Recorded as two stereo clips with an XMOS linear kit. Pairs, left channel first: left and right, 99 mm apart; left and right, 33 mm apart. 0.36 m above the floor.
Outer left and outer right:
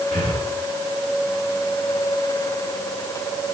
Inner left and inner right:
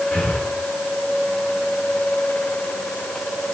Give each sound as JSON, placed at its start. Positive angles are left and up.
{"t": 0.1, "sound": "breathing", "side_deg": 75, "distance_m": 2.5}